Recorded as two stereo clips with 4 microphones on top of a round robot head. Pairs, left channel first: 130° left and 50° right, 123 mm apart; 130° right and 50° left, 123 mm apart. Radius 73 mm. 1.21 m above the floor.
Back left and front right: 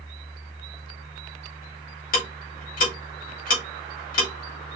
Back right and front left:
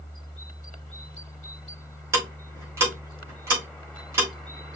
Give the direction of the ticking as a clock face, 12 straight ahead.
8 o'clock.